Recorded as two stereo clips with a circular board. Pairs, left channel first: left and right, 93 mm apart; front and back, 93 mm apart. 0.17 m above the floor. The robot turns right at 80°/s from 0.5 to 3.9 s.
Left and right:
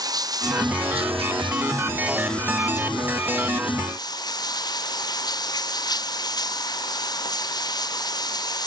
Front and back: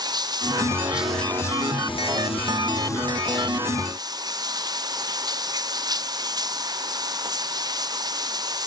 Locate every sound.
0.0 s running water: 135° right; by 8.7 s 135° left